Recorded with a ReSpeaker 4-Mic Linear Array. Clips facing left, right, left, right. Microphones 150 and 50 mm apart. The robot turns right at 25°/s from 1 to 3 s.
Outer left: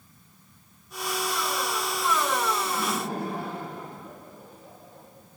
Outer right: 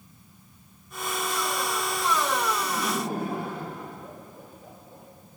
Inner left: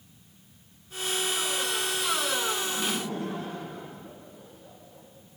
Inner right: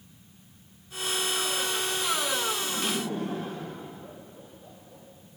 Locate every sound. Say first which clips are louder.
2.6 s laughter: outer right 1 dB, even; 40° right (ahead or behind), 7 m; by 5.1 s 50° right (ahead or behind), 7 m